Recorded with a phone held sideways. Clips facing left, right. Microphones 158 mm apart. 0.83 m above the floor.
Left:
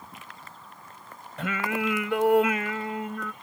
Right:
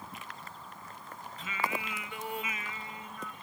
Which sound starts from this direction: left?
Singing, at 1.4 s.